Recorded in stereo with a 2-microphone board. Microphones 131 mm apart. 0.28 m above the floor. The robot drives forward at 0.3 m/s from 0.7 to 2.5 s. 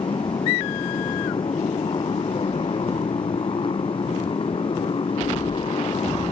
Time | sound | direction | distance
0.0 | a motorcycle | 40° left (ahead or behind) | ?